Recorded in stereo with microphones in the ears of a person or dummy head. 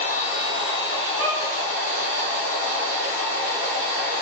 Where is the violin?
40° left (ahead or behind), 1.6 m.